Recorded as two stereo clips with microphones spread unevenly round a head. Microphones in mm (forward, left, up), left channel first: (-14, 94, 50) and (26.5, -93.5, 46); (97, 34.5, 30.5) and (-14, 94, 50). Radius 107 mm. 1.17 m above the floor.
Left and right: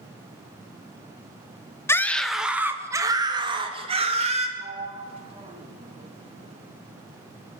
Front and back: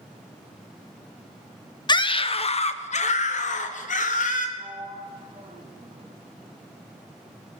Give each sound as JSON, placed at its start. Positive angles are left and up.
{"t": 1.9, "sound": "a scream", "azimuth_deg": 25, "distance_m": 1.1}
{"t": 4.6, "sound": "a sliding door", "azimuth_deg": -140, "distance_m": 1.4}